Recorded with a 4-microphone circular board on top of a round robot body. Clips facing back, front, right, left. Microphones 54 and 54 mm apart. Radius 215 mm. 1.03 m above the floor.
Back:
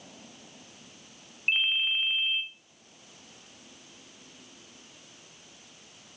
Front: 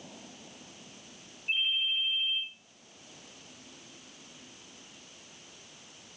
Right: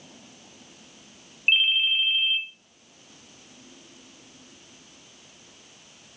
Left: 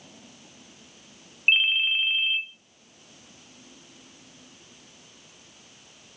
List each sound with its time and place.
1.5 s a ringtone: 160° left, 0.6 m